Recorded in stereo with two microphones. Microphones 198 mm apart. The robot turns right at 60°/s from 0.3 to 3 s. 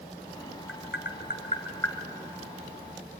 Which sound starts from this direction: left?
Tapping, at 0.7 s.